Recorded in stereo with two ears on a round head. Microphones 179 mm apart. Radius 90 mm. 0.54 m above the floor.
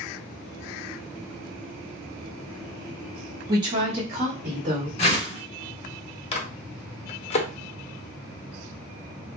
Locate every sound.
3.5 s a woman speaking: 20° right (ahead or behind), 0.7 m; by 4.9 s 40° right (ahead or behind), 1.4 m
5.0 s a whoosh: 30° left (ahead or behind), 1.1 m
6.3 s a microwave: 30° left (ahead or behind), 0.6 m